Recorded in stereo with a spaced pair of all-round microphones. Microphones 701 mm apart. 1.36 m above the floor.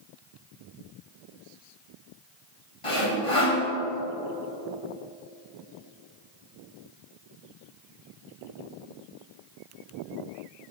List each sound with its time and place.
2.8 s sawing: 45° left (ahead or behind), 2.5 m